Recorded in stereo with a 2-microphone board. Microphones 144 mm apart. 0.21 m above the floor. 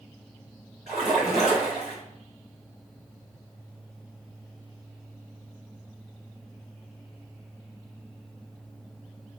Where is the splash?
5° right (ahead or behind), 1.4 m.